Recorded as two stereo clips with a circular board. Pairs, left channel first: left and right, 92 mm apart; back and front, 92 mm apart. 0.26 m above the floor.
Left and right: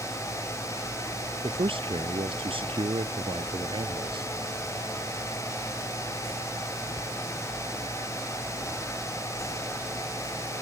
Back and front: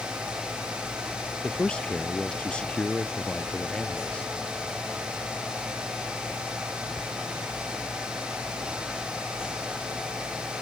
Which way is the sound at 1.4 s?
100° right.